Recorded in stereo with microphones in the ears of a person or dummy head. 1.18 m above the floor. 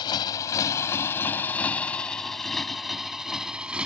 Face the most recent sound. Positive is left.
turn(degrees=0)  # may be behind; listen again after turning